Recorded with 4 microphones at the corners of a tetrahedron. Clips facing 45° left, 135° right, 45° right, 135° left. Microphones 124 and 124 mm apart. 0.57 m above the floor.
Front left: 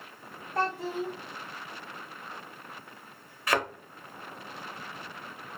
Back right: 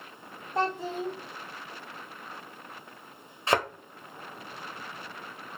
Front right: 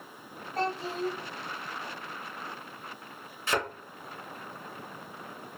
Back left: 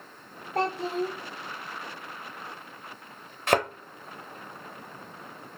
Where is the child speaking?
155° left, 0.6 m.